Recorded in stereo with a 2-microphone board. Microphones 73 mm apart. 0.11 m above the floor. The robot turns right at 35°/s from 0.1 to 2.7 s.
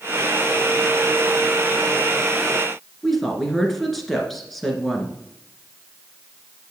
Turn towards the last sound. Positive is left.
turn(degrees=5)  # may be behind; listen again after turning